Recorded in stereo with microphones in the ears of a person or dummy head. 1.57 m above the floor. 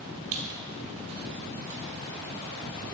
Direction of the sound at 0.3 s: 40° right (ahead or behind).